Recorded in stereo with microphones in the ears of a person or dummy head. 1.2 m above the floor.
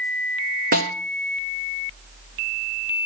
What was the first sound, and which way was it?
A snare drum, 50° right (ahead or behind).